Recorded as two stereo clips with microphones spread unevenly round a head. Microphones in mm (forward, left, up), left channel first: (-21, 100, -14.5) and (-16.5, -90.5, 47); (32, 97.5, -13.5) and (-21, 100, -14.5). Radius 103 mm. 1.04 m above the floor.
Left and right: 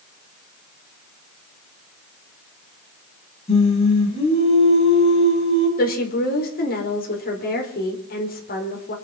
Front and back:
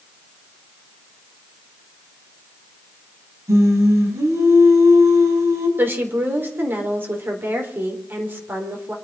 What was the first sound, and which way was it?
Singing, 155° left.